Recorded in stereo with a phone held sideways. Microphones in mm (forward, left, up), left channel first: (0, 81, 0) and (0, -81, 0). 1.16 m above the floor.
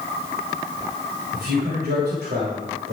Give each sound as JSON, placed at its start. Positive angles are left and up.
{"t": 1.3, "sound": "a man speaking", "side_deg": -80, "distance_m": 7.0}